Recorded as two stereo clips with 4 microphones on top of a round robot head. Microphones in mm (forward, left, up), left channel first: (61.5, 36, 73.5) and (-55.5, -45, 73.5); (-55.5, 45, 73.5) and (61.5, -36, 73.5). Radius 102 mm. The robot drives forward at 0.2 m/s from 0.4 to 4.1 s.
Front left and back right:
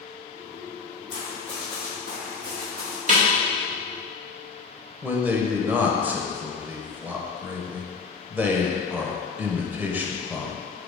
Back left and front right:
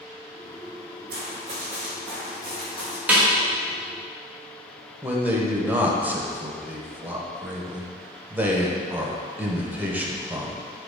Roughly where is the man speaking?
Right.